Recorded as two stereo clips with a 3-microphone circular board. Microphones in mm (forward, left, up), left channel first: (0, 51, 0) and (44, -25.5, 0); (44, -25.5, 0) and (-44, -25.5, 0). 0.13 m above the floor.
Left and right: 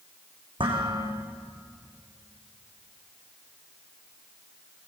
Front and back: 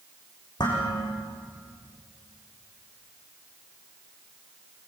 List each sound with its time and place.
0.6 s dishes clattering: 40° right, 6.5 m